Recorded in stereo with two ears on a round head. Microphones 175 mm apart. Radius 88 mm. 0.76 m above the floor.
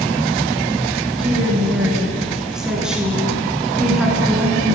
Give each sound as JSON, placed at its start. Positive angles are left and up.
{"t": 1.2, "sound": "a woman speaking", "side_deg": -5, "distance_m": 8.0}